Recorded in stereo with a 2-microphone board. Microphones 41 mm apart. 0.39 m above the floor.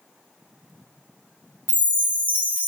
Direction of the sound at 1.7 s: 45° right (ahead or behind).